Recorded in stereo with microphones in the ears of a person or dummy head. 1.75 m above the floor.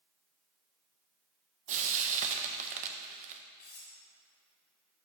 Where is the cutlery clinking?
35° left (ahead or behind), 1.3 m.